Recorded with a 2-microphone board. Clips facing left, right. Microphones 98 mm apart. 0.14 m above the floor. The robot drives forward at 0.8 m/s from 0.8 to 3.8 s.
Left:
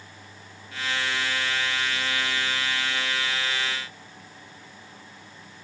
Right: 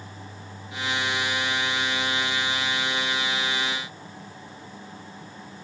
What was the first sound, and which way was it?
Only background noise.